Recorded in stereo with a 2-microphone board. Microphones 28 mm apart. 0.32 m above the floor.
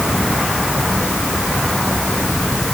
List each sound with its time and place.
Only background noise.